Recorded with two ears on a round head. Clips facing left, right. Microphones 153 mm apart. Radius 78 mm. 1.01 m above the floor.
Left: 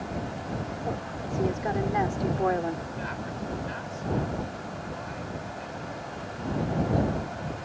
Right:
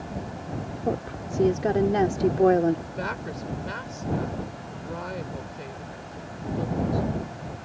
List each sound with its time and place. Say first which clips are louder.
0.8 s a woman speaking: right 4 dB; 40° right (ahead or behind)
2.9 s a woman speaking: right 2 dB; 65° right (ahead or behind)